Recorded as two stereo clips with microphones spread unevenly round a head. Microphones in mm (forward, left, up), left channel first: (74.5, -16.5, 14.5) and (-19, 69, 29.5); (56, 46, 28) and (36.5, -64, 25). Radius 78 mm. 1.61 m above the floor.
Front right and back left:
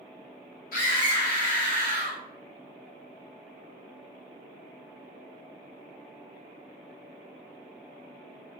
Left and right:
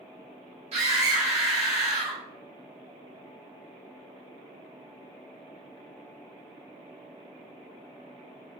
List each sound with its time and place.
0.7 s a scream: 75° right, 1.8 m